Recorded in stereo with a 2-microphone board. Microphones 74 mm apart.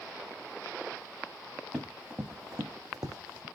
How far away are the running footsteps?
About 1.1 m.